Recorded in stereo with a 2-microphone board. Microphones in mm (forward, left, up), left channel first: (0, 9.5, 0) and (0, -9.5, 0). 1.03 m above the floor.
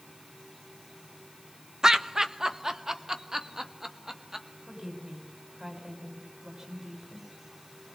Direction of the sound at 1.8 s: 40° right (ahead or behind).